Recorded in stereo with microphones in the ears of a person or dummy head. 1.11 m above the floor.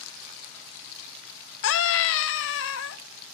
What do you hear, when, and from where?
1.6 s a scream: 75° left (ahead or behind), 1.5 m